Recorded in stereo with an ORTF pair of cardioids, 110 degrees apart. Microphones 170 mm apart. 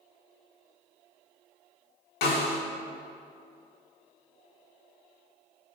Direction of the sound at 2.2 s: 65° left.